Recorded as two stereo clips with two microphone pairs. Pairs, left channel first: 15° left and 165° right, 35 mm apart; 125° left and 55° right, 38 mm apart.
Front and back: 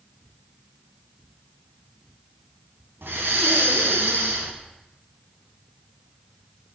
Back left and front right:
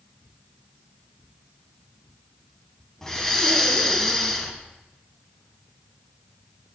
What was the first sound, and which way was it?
Breathing, 155° right.